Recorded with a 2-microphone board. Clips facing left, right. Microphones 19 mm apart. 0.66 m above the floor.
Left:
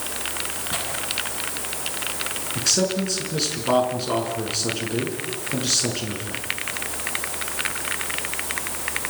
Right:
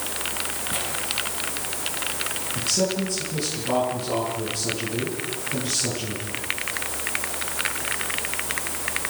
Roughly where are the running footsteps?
I don't hear running footsteps.